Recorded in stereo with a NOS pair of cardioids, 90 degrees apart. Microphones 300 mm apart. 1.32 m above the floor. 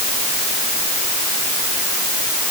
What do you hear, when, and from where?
Only background noise.